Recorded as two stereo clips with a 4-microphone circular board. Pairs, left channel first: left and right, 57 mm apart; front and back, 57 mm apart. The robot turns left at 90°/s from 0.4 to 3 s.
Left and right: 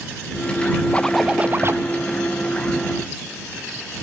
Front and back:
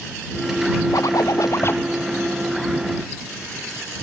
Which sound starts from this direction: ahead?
A zipper, at 0.9 s.